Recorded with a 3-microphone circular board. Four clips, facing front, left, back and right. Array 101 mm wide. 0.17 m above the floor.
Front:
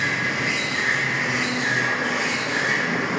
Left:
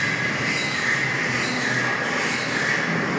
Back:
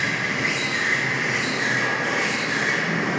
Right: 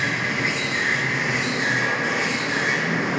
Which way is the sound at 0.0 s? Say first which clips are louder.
Even, even; 140° right.